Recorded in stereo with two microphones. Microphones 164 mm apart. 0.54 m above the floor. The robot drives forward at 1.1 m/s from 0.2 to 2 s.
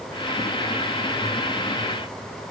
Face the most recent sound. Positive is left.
No sound to turn to.